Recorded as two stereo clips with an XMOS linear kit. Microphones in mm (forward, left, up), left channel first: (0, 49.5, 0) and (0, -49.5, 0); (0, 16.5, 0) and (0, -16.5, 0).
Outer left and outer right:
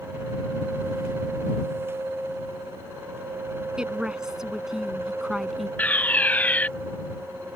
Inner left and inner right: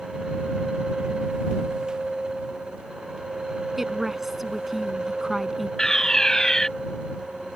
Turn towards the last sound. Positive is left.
turn(degrees=15)  # may be behind; listen again after turning